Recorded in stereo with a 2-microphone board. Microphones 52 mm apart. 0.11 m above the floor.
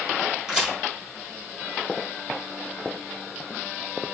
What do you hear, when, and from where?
0.5 s a crack: 15° right (ahead or behind), 1.8 m